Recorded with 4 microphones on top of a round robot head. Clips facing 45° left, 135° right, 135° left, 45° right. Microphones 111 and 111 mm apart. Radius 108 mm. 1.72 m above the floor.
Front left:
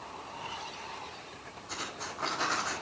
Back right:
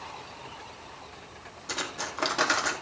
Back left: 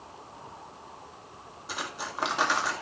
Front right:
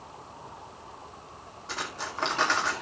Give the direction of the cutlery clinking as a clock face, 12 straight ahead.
5 o'clock.